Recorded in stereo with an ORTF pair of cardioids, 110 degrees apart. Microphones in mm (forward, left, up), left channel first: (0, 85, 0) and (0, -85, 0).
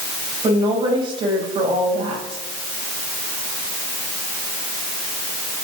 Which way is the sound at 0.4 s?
30° right.